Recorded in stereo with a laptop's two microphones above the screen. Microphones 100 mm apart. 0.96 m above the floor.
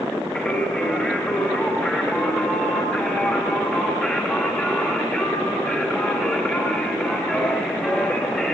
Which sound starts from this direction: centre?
Singing, at 0.3 s.